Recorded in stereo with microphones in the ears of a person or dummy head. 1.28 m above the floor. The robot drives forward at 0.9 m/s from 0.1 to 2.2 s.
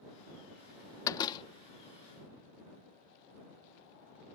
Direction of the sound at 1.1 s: 25° left (ahead or behind).